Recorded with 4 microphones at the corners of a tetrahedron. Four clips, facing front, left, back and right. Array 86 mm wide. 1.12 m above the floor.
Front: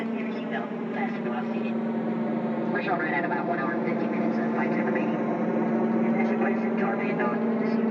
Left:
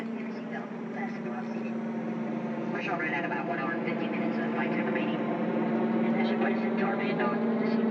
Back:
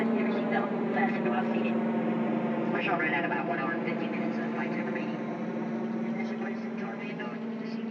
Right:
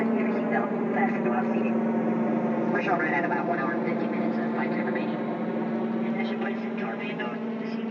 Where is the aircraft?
100° right; by 7.9 s 20° left.